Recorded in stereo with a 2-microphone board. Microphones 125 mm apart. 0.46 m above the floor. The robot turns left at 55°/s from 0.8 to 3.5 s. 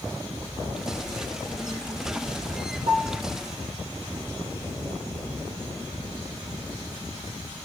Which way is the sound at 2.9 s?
70° right (ahead or behind).